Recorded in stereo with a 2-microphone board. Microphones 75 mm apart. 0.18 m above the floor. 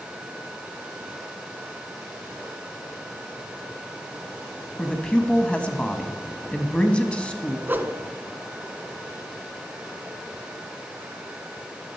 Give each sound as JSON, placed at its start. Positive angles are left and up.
{"t": 4.8, "sound": "a man speaking", "side_deg": 15, "distance_m": 1.0}
{"t": 7.7, "sound": "a whoosh", "side_deg": -25, "distance_m": 0.7}